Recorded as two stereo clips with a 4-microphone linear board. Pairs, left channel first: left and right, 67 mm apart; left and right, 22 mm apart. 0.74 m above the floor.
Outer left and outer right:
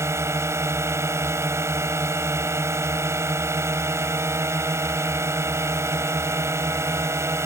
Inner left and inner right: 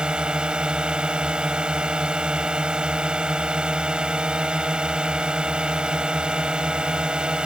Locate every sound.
0.0 s a drone: 45° right (ahead or behind)